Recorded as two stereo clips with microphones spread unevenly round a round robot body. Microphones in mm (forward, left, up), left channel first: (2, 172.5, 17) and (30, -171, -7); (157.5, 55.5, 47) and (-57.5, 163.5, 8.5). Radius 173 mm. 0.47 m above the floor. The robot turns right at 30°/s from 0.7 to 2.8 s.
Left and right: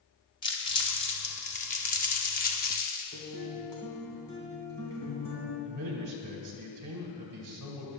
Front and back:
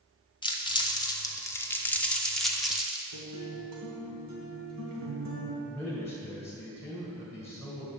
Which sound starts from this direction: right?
A man speaking, at 5.7 s.